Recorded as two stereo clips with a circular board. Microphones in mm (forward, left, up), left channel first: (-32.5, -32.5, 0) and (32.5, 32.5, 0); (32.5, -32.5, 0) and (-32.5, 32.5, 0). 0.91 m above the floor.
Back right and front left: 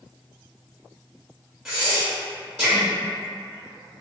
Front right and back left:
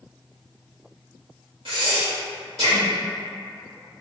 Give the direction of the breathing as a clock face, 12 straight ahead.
8 o'clock.